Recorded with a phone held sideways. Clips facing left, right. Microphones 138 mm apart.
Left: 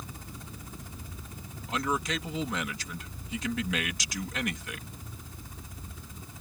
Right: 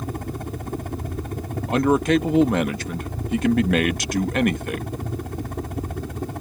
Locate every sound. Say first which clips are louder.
0.0 s a helicopter: right 15 dB; 60° right (ahead or behind); by 6.4 s 65° right (ahead or behind)
1.7 s a man speaking: right 13 dB; 55° right (ahead or behind)